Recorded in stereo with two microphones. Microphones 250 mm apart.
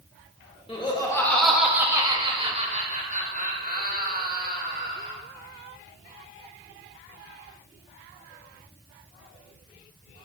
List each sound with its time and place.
0.7 s laughter: 20° left (ahead or behind), 1.2 m; by 5.1 s 40° right (ahead or behind), 3 m